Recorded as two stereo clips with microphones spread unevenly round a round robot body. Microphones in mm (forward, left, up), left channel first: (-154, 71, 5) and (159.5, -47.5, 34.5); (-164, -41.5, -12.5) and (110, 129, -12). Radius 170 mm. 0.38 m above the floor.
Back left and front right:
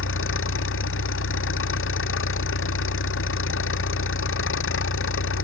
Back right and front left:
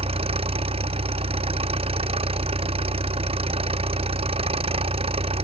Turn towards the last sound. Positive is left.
turn(degrees=105)